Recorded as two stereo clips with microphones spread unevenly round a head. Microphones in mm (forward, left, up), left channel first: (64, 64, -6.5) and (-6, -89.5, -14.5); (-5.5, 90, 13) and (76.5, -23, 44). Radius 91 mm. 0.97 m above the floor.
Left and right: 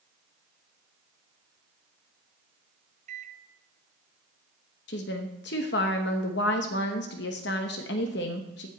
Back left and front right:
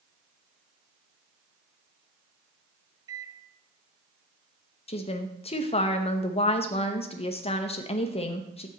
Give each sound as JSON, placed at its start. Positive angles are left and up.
{"t": 3.1, "sound": "a microwave", "azimuth_deg": -125, "distance_m": 0.6}
{"t": 4.9, "sound": "a woman speaking", "azimuth_deg": 95, "distance_m": 0.9}